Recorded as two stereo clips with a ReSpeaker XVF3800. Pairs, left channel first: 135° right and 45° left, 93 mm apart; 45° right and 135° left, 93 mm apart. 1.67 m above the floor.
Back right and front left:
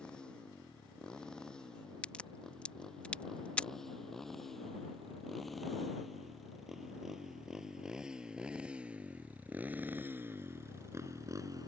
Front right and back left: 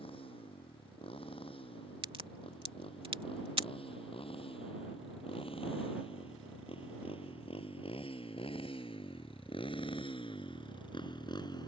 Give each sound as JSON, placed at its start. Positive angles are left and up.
{"t": 0.0, "sound": "a motorcycle", "azimuth_deg": -55}
{"t": 2.0, "sound": "a crack", "azimuth_deg": 150}